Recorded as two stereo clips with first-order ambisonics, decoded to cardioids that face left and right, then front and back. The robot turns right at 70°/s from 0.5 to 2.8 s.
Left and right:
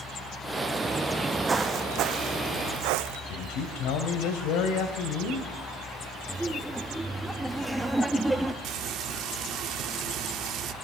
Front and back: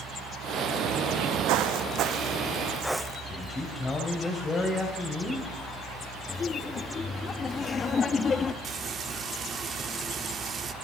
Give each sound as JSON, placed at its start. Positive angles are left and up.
{"t": 1.5, "sound": "footsteps", "azimuth_deg": -160, "distance_m": 1.7}
{"t": 3.3, "sound": "a man speaking", "azimuth_deg": 75, "distance_m": 3.5}
{"t": 6.3, "sound": "laughter", "azimuth_deg": -15, "distance_m": 1.2}
{"t": 8.6, "sound": "frying", "azimuth_deg": -120, "distance_m": 1.6}